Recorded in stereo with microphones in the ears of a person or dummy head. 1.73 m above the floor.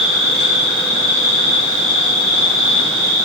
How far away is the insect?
About 1.2 m.